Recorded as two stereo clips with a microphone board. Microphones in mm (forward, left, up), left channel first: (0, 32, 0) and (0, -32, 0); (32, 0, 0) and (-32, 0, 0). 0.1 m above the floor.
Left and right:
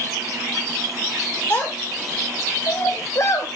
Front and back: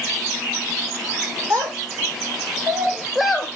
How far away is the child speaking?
About 3 m.